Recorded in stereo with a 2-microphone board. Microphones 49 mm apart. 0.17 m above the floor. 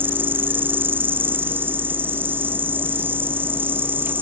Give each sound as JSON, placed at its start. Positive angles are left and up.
{"t": 0.0, "sound": "an insect", "side_deg": -40}